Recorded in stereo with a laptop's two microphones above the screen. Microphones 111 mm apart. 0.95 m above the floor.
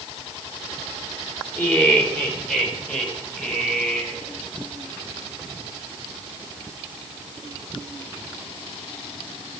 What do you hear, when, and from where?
1.6 s laughter: 15° left (ahead or behind), 4 m; by 4.2 s 10° left (ahead or behind), 5 m